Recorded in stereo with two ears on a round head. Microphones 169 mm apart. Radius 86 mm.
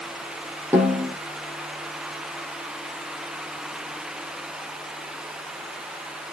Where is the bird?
No bird in this recording.